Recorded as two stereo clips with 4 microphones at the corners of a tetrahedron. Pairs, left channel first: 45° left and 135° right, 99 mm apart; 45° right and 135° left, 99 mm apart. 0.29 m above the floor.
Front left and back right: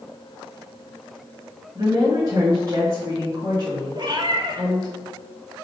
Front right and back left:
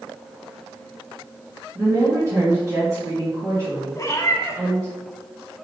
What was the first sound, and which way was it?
A woman speaking, 175° right.